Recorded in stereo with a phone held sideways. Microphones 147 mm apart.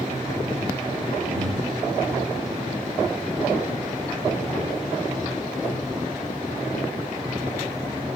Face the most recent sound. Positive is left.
turn(degrees=-70)  # may be behind; listen again after turning